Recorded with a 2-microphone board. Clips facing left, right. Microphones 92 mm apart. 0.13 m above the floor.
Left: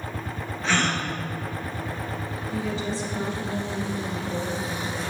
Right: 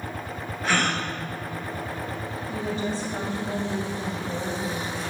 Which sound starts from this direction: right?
A woman speaking, at 2.5 s.